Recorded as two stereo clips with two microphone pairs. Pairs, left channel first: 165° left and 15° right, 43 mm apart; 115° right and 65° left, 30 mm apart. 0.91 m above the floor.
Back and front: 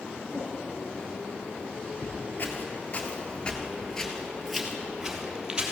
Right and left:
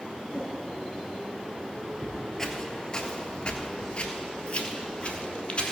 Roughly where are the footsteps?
Behind.